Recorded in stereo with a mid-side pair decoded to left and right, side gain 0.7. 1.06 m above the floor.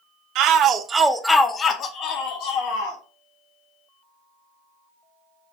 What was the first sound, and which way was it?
A shout, 60° right.